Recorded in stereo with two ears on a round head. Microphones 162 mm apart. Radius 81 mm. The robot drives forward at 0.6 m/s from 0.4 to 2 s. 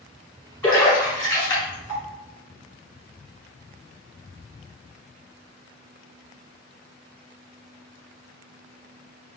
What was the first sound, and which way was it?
A splash, 10° left (ahead or behind).